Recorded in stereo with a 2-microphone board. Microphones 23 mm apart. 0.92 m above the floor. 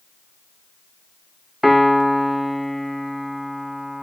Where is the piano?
10° right (ahead or behind), 0.5 m.